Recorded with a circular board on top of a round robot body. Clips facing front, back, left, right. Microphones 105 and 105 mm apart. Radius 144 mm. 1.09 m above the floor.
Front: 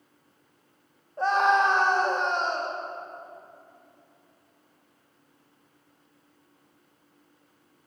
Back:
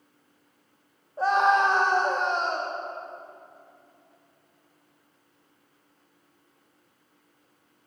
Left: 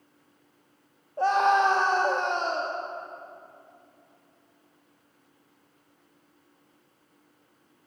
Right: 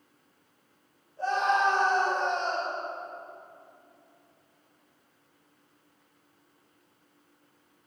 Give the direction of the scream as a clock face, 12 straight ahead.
9 o'clock.